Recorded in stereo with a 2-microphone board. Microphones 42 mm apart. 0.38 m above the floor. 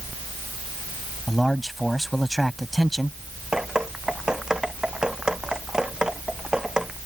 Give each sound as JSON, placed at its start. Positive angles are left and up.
{"t": 1.3, "sound": "a man speaking", "side_deg": 0}
{"t": 3.5, "sound": "dripping", "side_deg": -20}